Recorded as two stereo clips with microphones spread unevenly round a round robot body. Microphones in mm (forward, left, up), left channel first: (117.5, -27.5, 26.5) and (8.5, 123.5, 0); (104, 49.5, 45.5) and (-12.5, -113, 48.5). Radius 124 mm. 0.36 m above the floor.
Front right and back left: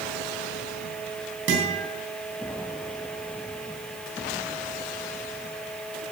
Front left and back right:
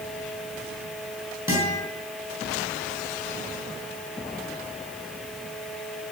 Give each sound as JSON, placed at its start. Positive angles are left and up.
{"t": 1.5, "sound": "a guitar", "azimuth_deg": 155, "distance_m": 5.5}